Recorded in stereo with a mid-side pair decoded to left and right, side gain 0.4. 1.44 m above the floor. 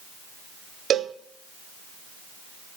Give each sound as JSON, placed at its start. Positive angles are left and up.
{"t": 0.9, "sound": "a cowbell", "azimuth_deg": -70, "distance_m": 0.7}